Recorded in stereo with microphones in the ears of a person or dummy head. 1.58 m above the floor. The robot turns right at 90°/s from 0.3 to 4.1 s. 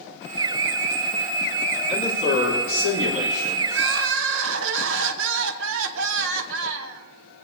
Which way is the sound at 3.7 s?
120° right.